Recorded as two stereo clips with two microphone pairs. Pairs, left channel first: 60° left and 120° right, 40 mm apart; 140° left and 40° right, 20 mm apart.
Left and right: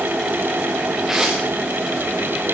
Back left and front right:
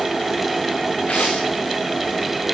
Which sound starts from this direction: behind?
Tearing paper, at 1.1 s.